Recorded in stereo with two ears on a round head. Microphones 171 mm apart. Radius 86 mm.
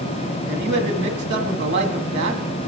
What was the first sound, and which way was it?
A man speaking, 65° right (ahead or behind).